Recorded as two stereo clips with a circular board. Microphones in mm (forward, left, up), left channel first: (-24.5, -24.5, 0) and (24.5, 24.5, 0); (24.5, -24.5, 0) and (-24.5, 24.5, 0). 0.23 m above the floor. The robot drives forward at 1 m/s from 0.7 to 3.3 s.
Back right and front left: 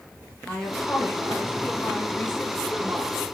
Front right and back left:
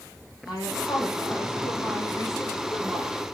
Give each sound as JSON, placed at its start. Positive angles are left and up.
{"t": 0.5, "sound": "a woman speaking", "azimuth_deg": -60, "distance_m": 4.5}